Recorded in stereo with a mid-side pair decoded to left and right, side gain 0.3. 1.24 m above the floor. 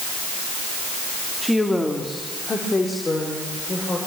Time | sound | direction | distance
1.4 | a woman speaking | 15° left | 2.5 m